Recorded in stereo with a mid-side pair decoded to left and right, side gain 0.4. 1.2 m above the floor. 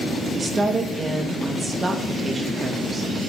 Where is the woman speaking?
30° right, 1.3 m.